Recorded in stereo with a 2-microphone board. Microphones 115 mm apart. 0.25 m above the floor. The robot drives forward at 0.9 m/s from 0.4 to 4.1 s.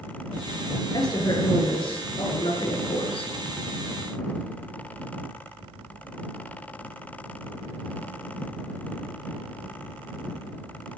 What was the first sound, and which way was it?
A woman speaking, 40° left (ahead or behind).